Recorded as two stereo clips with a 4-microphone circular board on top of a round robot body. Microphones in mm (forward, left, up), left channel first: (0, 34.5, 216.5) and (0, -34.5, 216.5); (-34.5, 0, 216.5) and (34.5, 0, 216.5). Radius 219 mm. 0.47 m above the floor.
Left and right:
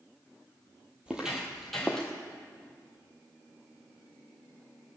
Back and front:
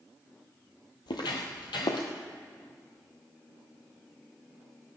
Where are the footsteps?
165° right, 1.0 m; by 2.1 s 170° left, 1.3 m.